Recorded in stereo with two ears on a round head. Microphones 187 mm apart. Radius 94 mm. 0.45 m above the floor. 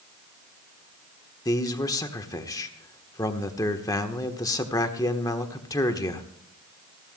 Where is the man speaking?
15° left (ahead or behind), 1.1 m.